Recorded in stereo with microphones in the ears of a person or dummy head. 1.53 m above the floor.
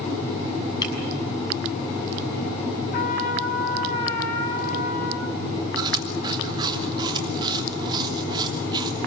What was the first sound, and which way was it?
Breaking glass, 30° left (ahead or behind).